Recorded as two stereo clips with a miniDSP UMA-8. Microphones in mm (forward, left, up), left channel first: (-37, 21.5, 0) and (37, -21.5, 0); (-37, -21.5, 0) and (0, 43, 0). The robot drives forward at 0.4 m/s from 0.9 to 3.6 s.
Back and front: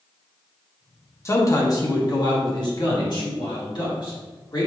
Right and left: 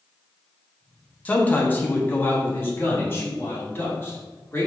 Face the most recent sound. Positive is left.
turn(degrees=180)